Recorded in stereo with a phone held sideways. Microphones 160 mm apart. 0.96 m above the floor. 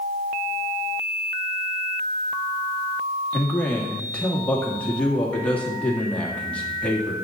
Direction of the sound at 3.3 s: 10° left (ahead or behind).